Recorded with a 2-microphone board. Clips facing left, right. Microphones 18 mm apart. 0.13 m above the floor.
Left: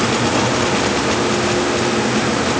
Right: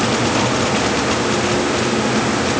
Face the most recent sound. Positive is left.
No sound to turn to.